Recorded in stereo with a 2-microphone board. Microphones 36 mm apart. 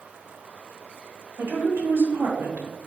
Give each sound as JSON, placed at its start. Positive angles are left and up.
{"t": 1.4, "sound": "a woman speaking", "side_deg": -85, "distance_m": 1.4}